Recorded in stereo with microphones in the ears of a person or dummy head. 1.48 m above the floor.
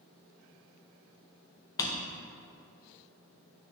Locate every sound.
1.8 s a drawer: 20° left (ahead or behind), 0.6 m